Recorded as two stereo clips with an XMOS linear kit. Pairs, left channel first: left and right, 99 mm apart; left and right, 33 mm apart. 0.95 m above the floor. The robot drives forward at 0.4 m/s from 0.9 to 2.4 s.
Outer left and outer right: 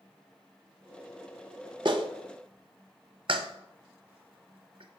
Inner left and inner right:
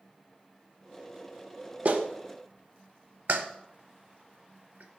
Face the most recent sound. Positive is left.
turn(degrees=-60)  # may be behind; listen again after turning